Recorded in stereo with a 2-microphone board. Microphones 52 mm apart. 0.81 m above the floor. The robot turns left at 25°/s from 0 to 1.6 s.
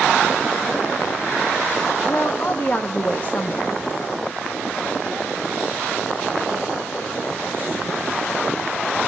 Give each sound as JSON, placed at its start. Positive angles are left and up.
{"t": 2.1, "sound": "a woman speaking", "side_deg": 40, "distance_m": 0.9}